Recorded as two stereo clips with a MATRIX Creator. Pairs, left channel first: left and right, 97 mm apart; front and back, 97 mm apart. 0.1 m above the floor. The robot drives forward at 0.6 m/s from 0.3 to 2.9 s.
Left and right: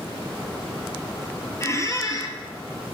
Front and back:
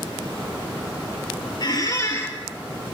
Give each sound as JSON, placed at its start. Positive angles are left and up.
{"t": 1.6, "sound": "a squeak", "azimuth_deg": 35, "distance_m": 1.0}